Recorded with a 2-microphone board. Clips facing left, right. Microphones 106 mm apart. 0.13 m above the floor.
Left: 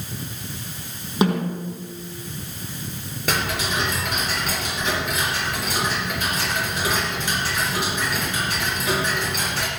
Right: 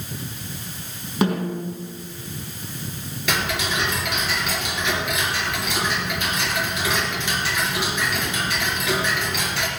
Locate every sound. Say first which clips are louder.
1.2 s a snare drum: left 1 dB; 20° left (ahead or behind), 5 m
3.3 s ticking: even; 40° left (ahead or behind), 2.5 m